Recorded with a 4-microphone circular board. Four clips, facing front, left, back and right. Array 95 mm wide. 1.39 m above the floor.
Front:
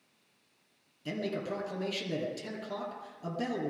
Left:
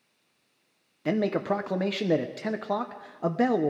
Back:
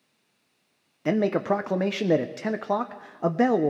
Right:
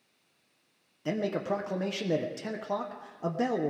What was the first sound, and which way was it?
A man speaking, 160° left.